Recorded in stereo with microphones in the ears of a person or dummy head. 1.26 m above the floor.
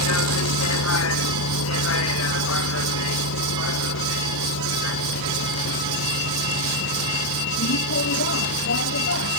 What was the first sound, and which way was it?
A vehicle, 85° left.